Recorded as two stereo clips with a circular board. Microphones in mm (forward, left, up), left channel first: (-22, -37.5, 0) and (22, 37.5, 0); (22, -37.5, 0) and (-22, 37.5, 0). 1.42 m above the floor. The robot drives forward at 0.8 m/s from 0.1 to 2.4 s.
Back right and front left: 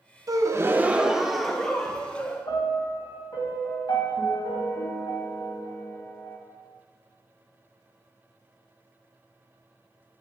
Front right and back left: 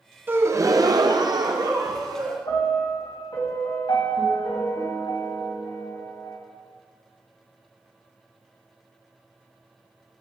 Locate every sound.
0.3 s a gasp: 65° left, 0.7 m; by 2.4 s 165° left, 1.6 m
2.5 s a piano: 90° right, 3 m